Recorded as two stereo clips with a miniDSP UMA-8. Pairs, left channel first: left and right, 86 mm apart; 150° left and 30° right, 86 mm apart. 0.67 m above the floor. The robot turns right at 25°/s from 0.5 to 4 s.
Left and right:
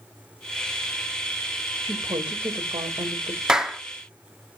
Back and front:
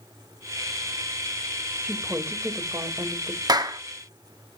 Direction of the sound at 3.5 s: 10° right.